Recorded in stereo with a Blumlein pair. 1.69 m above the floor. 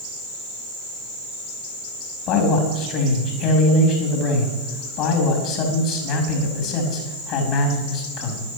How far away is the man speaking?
About 4 m.